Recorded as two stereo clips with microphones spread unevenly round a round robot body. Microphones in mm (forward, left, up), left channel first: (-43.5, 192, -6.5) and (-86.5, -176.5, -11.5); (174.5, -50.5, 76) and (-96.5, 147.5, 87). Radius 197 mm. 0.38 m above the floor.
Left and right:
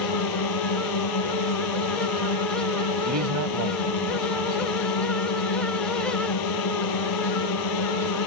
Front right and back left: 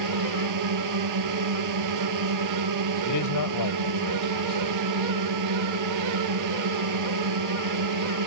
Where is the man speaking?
55° right.